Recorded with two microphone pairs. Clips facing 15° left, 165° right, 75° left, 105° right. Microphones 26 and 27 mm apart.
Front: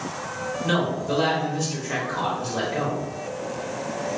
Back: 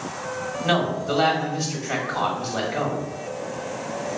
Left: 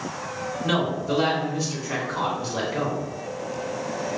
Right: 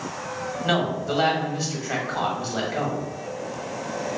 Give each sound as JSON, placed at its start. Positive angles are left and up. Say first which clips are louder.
{"t": 0.6, "sound": "a man speaking", "louder": "back 2 dB, right 1 dB", "azimuth_deg": -140, "distance_m": 1.3}